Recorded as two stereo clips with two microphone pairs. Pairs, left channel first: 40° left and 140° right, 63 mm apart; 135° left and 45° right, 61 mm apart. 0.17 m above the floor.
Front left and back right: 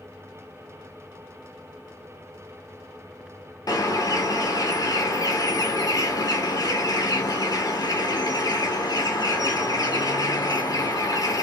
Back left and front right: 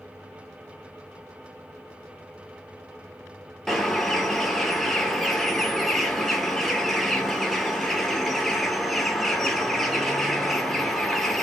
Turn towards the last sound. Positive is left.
turn(degrees=50)